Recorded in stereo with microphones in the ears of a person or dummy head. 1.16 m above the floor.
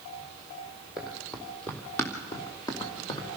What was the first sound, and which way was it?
Running footsteps, centre (ahead or behind).